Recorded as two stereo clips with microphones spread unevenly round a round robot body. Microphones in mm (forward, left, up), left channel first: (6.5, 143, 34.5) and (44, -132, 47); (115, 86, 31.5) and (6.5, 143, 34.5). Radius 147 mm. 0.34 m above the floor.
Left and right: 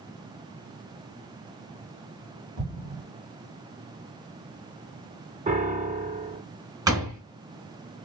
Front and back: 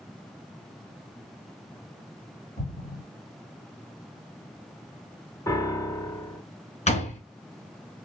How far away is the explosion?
About 2.5 m.